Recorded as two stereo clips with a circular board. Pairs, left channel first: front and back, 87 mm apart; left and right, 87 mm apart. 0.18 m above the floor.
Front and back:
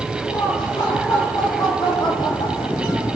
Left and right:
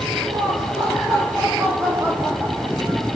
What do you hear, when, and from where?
0.2 s laughter: 55° right, 4 m; by 3.2 s 30° right, 4 m